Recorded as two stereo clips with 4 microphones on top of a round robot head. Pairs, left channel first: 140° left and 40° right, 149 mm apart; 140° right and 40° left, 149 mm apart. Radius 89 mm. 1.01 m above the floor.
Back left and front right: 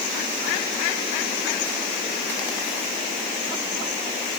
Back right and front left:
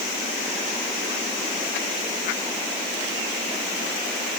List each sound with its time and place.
Only background noise.